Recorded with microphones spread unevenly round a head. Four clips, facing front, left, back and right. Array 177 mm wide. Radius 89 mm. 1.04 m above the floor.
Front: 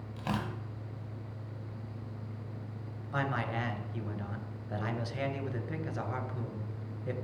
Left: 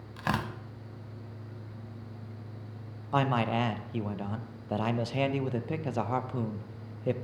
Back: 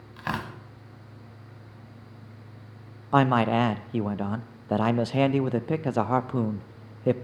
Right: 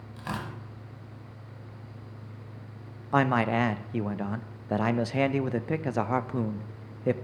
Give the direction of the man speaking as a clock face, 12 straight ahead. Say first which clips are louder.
Right 3 dB, back 13 dB; 5 o'clock.